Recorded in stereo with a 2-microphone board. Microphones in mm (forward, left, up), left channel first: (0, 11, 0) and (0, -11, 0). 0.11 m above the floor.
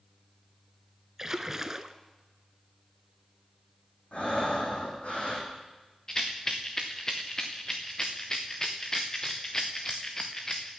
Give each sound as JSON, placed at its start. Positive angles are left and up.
{"t": 1.2, "sound": "a splash", "side_deg": -20, "distance_m": 0.6}
{"t": 4.1, "sound": "breathing", "side_deg": 65, "distance_m": 4.0}
{"t": 6.1, "sound": "a rattle", "side_deg": 20, "distance_m": 1.8}